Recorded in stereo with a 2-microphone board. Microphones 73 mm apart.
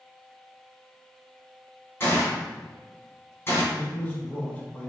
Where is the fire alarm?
I don't hear a fire alarm.